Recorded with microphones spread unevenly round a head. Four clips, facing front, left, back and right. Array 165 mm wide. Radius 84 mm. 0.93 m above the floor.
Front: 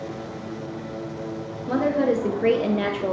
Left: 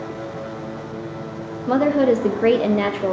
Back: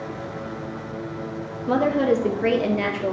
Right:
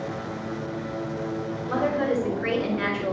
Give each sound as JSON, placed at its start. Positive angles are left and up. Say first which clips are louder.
{"t": 1.7, "sound": "a woman speaking", "louder": "left 8 dB, back 2 dB", "azimuth_deg": 115, "distance_m": 1.2}